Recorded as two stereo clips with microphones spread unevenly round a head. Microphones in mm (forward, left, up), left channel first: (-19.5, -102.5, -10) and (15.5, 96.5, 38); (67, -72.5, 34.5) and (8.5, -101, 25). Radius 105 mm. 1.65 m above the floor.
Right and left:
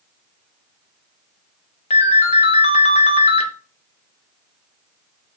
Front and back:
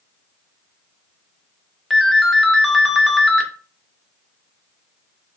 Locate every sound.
1.9 s a ringtone: 50° right, 0.5 m